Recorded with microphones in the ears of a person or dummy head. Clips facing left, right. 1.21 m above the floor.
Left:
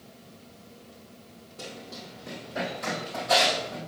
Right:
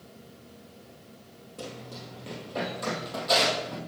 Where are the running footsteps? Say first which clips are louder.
Right 1 dB; 60° right (ahead or behind), 2.5 m.